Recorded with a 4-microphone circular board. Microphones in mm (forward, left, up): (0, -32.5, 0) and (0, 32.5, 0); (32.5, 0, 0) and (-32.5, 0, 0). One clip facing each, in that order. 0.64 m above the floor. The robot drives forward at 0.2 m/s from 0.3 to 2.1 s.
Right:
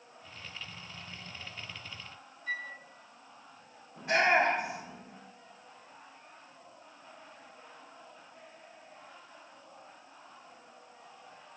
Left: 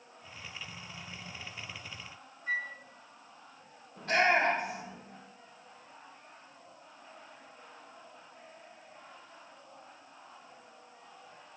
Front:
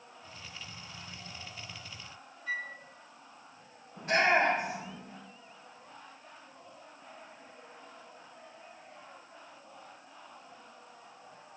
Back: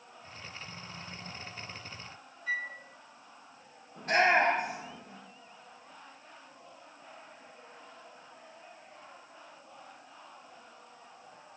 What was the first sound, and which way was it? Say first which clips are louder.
A flute: left 3 dB, back 2 dB; 100° left.